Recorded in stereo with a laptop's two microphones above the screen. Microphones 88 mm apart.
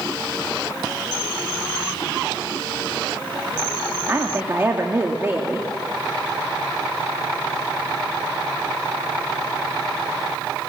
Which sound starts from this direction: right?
A woman speaking, at 4.1 s.